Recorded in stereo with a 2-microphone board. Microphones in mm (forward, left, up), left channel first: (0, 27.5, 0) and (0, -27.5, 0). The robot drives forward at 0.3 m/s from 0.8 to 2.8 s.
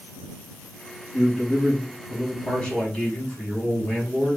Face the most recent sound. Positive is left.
turn(degrees=15)  # may be behind; listen again after turning